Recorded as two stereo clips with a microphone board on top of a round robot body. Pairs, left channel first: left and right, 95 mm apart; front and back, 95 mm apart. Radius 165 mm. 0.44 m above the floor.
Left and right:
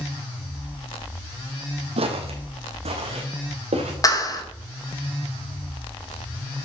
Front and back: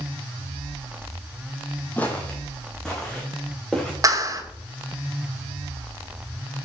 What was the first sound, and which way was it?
Footsteps, 75° right.